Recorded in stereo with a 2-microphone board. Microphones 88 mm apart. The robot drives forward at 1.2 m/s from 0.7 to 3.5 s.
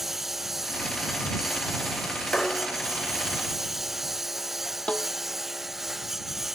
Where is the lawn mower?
Centre (ahead or behind).